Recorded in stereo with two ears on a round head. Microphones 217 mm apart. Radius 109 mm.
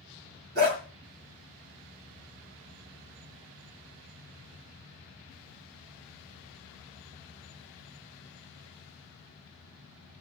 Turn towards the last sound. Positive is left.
turn(degrees=-40)  # may be behind; listen again after turning